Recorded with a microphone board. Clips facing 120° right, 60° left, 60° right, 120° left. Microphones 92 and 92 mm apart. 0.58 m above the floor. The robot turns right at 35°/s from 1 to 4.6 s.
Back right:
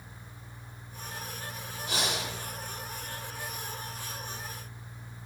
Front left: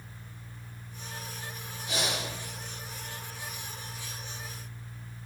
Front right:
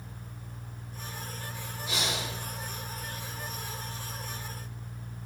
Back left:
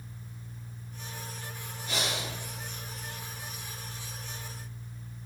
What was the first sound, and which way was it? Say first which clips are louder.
Breathing: even, even; 145° right.